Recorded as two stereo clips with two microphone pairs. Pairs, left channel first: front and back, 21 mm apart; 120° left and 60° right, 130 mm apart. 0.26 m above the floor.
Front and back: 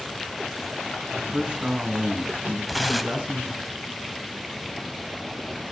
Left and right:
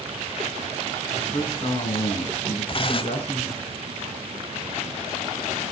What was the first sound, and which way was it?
A man speaking, 150° left.